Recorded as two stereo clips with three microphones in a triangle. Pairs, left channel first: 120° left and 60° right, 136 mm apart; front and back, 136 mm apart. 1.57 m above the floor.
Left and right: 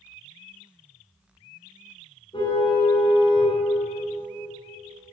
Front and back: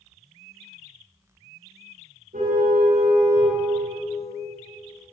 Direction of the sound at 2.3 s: 170° left.